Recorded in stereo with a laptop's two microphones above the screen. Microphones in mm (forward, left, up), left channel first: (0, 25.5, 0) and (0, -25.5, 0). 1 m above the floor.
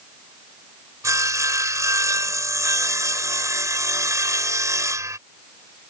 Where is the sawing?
70° right (ahead or behind).